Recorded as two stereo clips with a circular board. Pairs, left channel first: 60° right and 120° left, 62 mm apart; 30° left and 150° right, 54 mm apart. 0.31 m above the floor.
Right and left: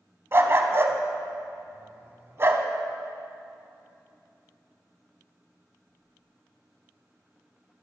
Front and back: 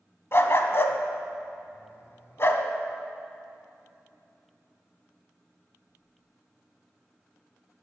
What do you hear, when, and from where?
0.3 s a dog barking: 70° left, 0.7 m